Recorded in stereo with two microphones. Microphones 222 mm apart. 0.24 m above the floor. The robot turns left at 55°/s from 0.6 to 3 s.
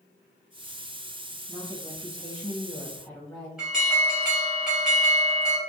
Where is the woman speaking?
20° right (ahead or behind), 1.3 m; by 3.5 s 15° left (ahead or behind), 1.3 m.